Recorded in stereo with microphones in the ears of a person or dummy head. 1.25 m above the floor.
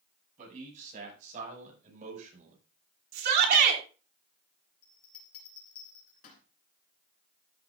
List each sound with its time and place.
0.4 s a man speaking: 45° right (ahead or behind), 8 m
3.1 s a shout: 60° right (ahead or behind), 3 m
4.8 s a bell: 50° left (ahead or behind), 2.5 m